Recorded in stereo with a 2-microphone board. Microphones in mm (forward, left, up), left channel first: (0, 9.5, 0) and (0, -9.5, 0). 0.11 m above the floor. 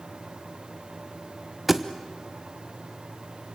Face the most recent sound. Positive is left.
turn(degrees=-10)  # may be behind; listen again after turning